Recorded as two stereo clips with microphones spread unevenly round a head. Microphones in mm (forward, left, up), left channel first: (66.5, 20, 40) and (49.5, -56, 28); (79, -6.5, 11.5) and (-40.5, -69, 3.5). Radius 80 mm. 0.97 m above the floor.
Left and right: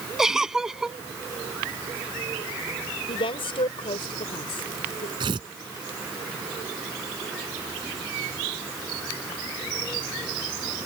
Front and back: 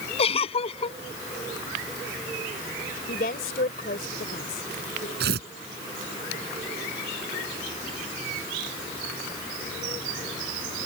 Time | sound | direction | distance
0.2 | a giggle | 20° right | ?
3.1 | a woman speaking | 70° left | ?
5.2 | tearing paper | 155° right | ?